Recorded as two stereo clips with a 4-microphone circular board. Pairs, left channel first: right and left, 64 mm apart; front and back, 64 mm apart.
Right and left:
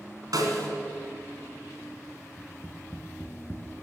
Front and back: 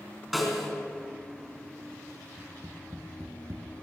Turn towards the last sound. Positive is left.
turn(degrees=-145)